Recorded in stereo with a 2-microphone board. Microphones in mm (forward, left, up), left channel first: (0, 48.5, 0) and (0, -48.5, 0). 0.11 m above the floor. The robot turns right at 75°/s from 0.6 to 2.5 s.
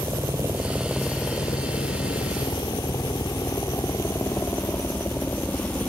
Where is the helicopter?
30° right (ahead or behind); by 5.9 s 15° left (ahead or behind).